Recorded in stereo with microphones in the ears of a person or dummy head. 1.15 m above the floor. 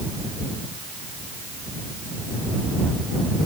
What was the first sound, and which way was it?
Only background noise.